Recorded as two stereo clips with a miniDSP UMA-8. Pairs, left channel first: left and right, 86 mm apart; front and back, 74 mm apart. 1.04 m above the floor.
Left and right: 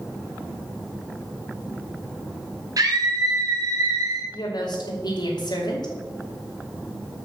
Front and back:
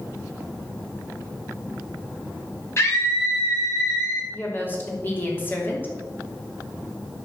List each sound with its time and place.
2.8 s a scream: 50° right, 2 m
4.3 s a woman speaking: 60° left, 3 m